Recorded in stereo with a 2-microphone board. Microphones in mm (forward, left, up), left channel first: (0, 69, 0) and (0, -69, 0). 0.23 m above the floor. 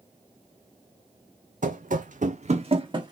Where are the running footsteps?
70° right (ahead or behind), 0.6 m; by 3.1 s 30° right (ahead or behind), 0.8 m.